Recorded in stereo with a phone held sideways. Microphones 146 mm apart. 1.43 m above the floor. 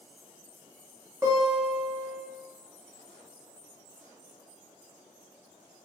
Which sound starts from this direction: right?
A guitar, at 1.2 s.